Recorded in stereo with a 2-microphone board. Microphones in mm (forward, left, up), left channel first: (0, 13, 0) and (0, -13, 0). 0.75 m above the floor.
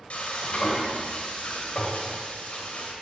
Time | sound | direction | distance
0.1 | frying | 60° left (ahead or behind) | 2.5 m